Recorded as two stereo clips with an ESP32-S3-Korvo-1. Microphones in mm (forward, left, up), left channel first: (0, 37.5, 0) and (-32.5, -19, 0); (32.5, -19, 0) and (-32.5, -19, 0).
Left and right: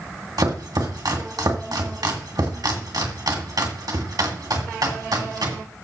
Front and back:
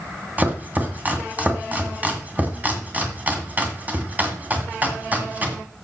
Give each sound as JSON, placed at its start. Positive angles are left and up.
{"t": 0.4, "sound": "chopping", "azimuth_deg": -115, "distance_m": 2.0}